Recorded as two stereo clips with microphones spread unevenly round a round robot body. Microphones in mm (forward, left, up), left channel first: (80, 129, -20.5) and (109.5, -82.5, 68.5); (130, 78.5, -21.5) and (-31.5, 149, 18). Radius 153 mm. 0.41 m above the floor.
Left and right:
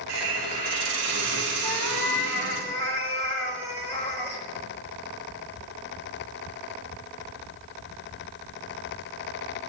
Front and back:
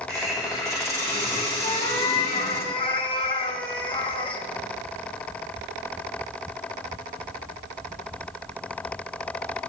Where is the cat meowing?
40° left, 6.5 m.